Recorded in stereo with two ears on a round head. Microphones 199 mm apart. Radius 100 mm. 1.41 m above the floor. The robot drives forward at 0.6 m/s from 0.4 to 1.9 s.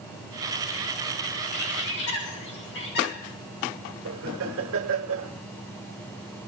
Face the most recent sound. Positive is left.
turn(degrees=-65)  # may be behind; listen again after turning